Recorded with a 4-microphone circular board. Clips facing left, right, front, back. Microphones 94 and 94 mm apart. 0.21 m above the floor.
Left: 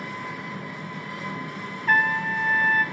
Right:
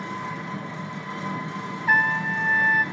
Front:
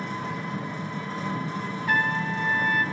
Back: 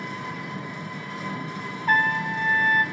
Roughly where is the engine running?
Ahead right.